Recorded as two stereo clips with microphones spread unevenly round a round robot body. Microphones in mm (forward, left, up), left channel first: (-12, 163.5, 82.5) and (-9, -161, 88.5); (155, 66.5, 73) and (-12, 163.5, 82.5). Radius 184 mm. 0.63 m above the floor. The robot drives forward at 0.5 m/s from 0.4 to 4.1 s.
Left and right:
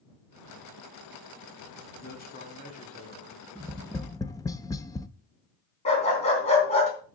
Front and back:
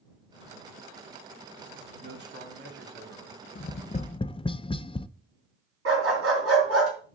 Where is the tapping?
10° left, 0.7 m; by 5.1 s 20° left, 0.5 m.